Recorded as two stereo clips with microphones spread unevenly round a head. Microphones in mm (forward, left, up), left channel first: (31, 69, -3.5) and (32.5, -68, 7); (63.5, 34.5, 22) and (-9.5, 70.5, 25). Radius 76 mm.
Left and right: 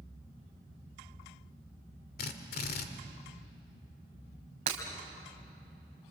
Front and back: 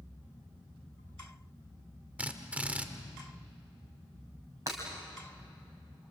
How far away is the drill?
About 1.7 m.